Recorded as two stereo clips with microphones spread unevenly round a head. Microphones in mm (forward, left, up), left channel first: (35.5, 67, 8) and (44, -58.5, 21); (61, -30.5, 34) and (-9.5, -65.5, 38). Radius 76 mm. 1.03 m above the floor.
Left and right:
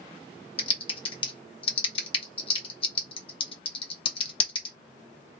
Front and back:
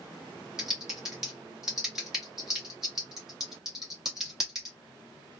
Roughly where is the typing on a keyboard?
Behind left.